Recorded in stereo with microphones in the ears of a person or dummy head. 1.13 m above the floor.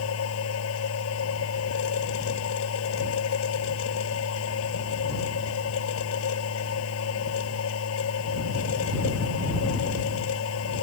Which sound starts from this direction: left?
A machine running, at 0.0 s.